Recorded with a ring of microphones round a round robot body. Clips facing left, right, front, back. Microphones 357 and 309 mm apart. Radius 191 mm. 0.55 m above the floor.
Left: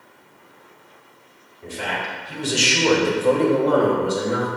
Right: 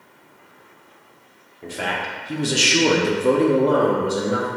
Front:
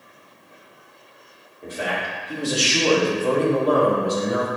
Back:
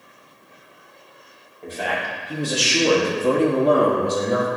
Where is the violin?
I don't hear a violin.